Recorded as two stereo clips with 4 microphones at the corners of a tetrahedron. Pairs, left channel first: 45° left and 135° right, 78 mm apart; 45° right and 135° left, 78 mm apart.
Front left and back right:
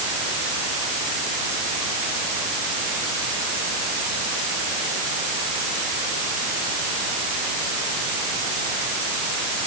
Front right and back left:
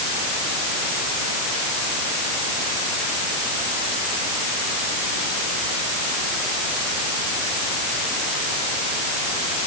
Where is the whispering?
No whispering in this recording.